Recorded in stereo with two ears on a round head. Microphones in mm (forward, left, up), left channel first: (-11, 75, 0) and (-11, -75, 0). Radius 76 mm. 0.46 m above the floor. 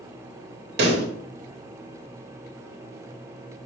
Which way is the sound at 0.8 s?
65° right (ahead or behind).